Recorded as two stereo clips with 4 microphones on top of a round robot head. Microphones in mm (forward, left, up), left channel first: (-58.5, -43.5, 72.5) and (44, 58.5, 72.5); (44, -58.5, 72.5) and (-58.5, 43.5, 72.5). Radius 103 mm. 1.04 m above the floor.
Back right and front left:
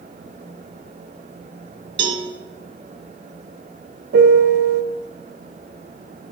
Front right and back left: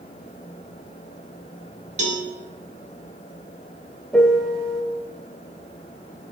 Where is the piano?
40° left, 0.6 m.